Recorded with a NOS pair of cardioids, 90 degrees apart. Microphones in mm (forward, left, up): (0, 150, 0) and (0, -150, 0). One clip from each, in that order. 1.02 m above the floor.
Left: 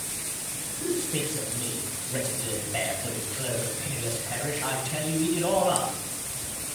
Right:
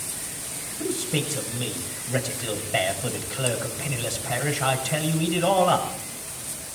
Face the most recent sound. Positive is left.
turn(degrees=-55)